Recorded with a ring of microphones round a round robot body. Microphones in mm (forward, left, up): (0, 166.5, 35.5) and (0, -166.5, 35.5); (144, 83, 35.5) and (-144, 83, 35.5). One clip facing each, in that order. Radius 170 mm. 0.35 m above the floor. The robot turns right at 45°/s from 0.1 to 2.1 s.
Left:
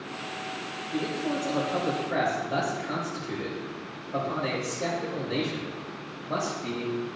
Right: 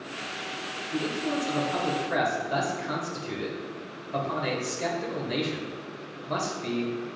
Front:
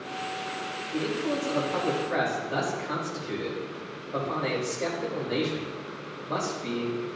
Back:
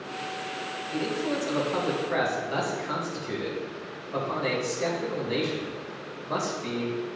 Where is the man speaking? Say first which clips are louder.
Even, even; 170° right, 1.8 m; by 7.1 s 115° right, 1.8 m.